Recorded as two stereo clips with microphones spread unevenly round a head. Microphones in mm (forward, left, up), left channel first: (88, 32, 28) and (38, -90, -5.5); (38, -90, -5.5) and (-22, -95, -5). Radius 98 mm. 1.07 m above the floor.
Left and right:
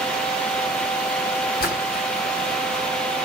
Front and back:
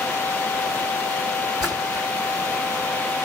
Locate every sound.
1.6 s a splash: 105° left, 2 m